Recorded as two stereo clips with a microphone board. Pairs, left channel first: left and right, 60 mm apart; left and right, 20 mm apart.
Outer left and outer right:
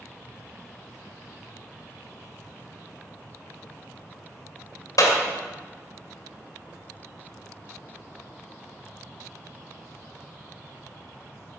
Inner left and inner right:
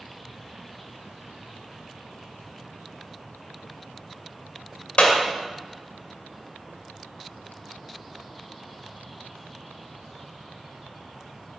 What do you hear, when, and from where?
5.0 s a clap: 80° left, 2.5 m